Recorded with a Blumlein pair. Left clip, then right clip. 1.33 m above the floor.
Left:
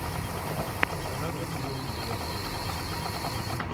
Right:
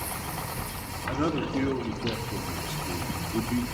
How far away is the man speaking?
About 4 m.